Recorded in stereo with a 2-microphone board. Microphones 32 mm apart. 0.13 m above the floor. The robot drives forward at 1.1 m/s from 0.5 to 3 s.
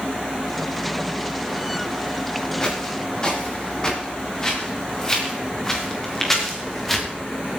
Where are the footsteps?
20° left (ahead or behind), 9.5 m; by 7.1 s 5° left (ahead or behind), 5.5 m.